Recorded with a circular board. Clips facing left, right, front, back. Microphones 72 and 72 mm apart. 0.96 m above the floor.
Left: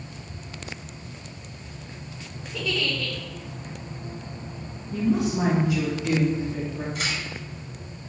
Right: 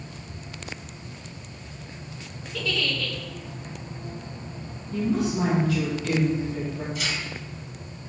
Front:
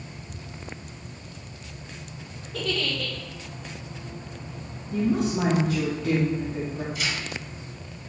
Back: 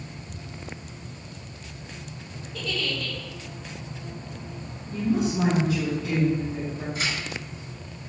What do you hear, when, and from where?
2.5 s a giggle: 20° left, 1.6 m
4.9 s a woman speaking: 25° left, 1.8 m
7.0 s tearing paper: 125° left, 3 m